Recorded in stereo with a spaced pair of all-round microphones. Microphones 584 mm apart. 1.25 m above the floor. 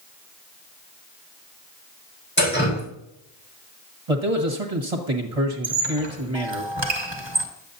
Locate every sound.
2.4 s dripping: 15° left (ahead or behind), 4.5 m
4.1 s a man speaking: 70° right (ahead or behind), 1.4 m
5.6 s a squeak: 45° right (ahead or behind), 1.5 m